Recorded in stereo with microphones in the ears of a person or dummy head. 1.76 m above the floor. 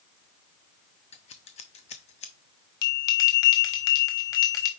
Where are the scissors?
40° left (ahead or behind), 0.7 m.